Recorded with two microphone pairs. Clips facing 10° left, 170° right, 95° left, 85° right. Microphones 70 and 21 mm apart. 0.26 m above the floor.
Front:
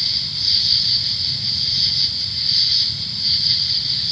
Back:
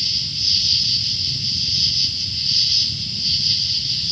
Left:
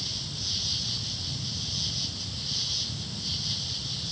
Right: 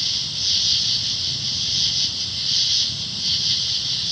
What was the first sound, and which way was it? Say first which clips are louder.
An insect: even, right 10 dB; 35° right.